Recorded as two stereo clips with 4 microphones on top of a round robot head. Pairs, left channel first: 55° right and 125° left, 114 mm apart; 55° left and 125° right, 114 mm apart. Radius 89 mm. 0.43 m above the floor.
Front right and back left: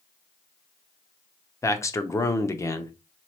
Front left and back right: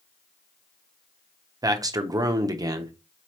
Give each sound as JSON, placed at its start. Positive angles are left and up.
{"t": 1.6, "sound": "a man speaking", "azimuth_deg": -95, "distance_m": 0.8}